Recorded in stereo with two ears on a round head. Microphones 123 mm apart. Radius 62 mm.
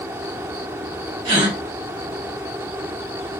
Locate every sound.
1.2 s a gasp: 40° right (ahead or behind), 1.0 m